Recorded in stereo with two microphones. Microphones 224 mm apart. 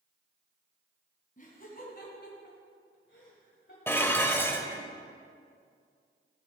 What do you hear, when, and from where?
1.4 s laughter: 40° left (ahead or behind), 2.5 m; by 3.8 s 55° left (ahead or behind), 1.6 m
3.9 s dishes clattering: 10° left (ahead or behind), 1.0 m